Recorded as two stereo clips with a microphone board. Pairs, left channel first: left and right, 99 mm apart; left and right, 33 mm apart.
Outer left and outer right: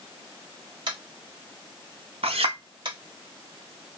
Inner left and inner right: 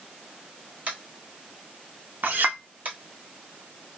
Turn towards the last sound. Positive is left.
turn(degrees=-75)  # may be behind; listen again after turning